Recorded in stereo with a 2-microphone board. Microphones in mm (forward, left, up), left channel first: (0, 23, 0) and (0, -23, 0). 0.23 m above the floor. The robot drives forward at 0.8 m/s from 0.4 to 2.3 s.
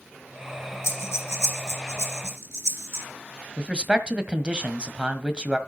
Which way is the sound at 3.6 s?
20° right (ahead or behind).